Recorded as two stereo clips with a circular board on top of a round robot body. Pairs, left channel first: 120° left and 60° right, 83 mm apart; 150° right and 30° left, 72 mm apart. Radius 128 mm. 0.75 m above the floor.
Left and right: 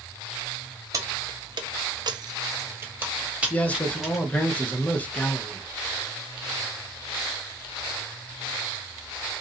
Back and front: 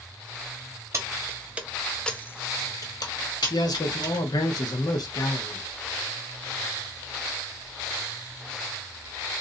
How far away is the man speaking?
About 0.8 m.